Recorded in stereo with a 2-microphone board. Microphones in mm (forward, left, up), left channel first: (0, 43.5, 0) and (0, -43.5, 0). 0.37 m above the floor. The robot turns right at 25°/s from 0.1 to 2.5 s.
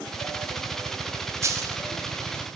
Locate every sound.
1.4 s a dropped coin: 35° right (ahead or behind), 0.7 m; by 1.8 s 45° right (ahead or behind), 0.7 m